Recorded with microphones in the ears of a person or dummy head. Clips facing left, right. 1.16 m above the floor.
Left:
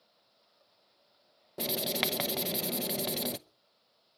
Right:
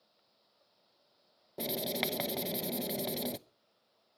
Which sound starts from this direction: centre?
Writing, at 1.6 s.